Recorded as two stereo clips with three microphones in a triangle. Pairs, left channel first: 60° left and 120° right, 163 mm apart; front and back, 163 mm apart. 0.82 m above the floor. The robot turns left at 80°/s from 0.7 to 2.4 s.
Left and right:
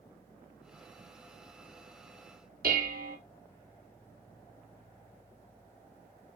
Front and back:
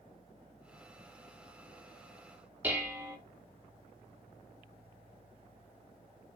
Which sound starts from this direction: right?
Dishes clattering, at 2.6 s.